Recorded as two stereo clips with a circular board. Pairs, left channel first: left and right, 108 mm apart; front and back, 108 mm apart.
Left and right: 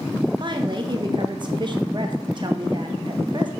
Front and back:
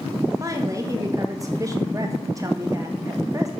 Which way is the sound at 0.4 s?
125° right.